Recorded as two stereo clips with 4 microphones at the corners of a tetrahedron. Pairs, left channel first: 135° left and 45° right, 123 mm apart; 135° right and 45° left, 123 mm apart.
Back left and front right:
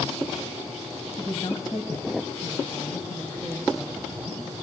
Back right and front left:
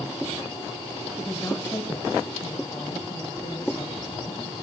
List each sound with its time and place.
1.2 s a woman speaking: 130° left, 1.1 m; by 4.5 s 170° right, 4 m